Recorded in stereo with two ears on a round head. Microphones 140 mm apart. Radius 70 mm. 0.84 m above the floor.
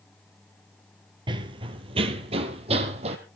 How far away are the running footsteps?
About 1.0 m.